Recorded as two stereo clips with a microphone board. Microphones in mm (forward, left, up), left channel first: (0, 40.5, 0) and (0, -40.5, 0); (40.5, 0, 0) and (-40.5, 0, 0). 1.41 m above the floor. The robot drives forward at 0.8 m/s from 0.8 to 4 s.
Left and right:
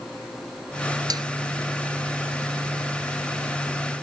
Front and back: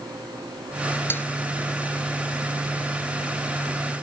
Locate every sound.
1.1 s a snare drum: 60° right; by 1.2 s 65° right